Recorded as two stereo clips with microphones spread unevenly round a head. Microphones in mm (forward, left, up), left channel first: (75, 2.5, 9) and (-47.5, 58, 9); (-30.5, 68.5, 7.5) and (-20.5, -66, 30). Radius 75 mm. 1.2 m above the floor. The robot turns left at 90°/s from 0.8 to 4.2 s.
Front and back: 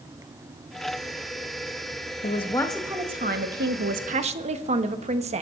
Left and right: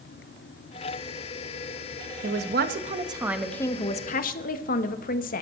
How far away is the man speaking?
About 1.2 m.